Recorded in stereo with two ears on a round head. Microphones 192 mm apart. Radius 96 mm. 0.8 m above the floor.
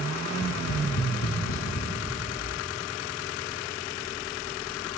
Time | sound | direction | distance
0.3 | tapping | 75° left (ahead or behind) | 0.7 m